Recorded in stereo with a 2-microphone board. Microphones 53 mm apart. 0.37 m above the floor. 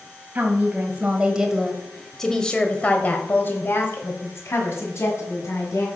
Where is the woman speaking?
35° right (ahead or behind), 1.8 m; by 5.9 s 70° left (ahead or behind), 2.5 m.